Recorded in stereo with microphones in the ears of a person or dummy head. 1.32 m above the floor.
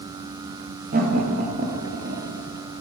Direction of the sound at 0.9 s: 40° right (ahead or behind).